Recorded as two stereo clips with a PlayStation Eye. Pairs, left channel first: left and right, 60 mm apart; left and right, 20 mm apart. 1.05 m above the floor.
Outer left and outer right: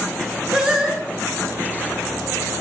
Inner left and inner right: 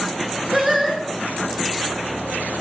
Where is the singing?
5° right (ahead or behind), 2.0 m.